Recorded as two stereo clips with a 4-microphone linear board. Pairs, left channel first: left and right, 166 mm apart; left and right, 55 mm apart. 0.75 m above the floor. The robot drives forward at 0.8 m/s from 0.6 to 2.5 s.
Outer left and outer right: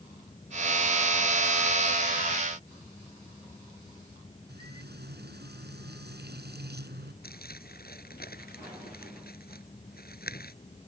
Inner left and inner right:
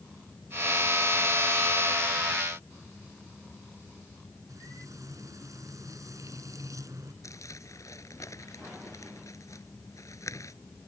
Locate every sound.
4.5 s frying: 85° right
7.2 s crumpling: 70° left (ahead or behind)